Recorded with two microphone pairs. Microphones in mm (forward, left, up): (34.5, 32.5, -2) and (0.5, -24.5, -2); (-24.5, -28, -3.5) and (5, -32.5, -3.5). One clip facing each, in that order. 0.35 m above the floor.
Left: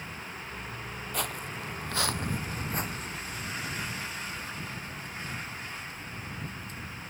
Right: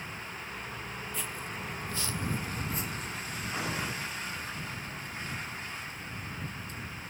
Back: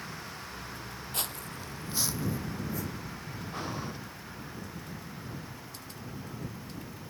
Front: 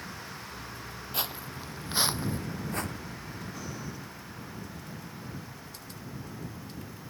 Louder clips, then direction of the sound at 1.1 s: Left 7 dB, front 3 dB; 65° left.